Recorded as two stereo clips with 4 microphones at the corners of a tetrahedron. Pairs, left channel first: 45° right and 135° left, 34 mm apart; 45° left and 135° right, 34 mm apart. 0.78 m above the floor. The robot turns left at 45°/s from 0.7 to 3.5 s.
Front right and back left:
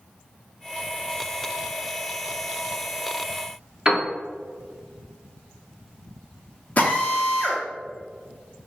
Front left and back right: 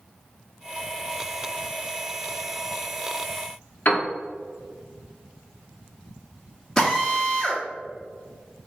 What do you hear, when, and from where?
3.9 s a piano: 70° left, 0.9 m
6.8 s a drill: 25° right, 1.1 m